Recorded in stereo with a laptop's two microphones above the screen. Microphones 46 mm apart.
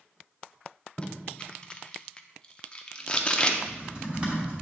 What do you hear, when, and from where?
1.0 s tape being pulled: 20° left (ahead or behind), 0.6 m
3.6 s typing on a keyboard: 25° right (ahead or behind), 1.5 m